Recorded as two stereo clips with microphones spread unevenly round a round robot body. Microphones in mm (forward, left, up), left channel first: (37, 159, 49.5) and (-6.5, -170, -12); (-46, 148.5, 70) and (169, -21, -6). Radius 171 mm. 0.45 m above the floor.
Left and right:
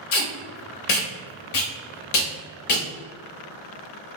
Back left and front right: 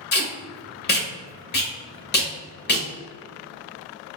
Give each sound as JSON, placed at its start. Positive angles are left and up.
{"t": 0.1, "sound": "tape being pulled", "azimuth_deg": 85, "distance_m": 0.8}